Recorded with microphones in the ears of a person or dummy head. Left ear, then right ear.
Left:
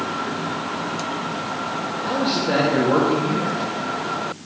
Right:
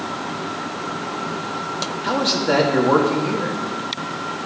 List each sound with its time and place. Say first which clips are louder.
2.0 s a man speaking: right 3 dB; 35° right (ahead or behind), 1.7 m